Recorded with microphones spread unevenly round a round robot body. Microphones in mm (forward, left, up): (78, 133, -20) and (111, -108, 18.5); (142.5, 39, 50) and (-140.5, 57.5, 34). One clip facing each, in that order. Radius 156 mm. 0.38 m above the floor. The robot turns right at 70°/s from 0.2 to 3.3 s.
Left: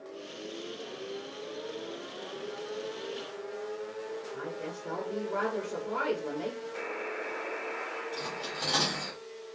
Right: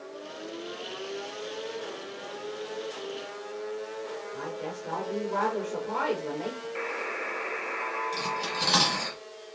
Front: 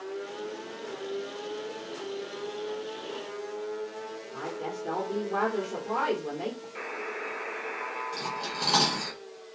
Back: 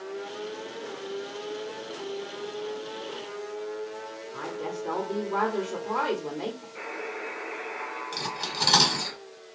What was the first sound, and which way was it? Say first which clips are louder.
A woman speaking: right 2 dB, back 2 dB; 110° left.